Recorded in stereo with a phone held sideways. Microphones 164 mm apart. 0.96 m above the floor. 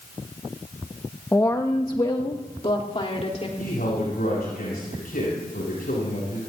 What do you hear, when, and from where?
1.3 s a woman speaking: 15° left (ahead or behind), 1.3 m; by 3.5 s 45° left (ahead or behind), 3 m
3.6 s a man speaking: 65° left (ahead or behind), 9.5 m